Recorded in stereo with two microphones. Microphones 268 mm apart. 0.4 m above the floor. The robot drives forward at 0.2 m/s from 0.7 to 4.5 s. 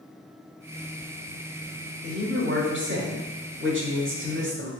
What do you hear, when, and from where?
2.0 s a man speaking: 40° right (ahead or behind), 1.3 m; by 4.7 s 45° right (ahead or behind), 1.2 m